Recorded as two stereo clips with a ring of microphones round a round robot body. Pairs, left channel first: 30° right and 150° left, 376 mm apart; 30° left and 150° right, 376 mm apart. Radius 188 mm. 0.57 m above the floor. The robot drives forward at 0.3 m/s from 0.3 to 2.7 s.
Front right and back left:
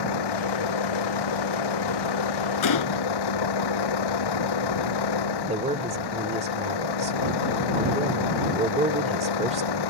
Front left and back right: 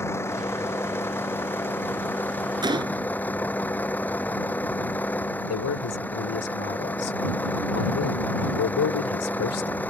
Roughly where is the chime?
I don't hear a chime.